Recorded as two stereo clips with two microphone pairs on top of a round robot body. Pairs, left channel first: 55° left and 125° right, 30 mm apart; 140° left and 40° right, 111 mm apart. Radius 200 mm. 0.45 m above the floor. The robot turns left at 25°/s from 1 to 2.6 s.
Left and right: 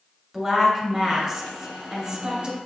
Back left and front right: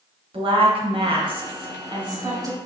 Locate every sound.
0.3 s a woman speaking: 45° right, 1.9 m; by 2.6 s 85° right, 1.9 m